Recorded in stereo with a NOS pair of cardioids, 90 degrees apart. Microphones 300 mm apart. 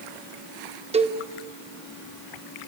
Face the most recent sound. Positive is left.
turn(degrees=-20)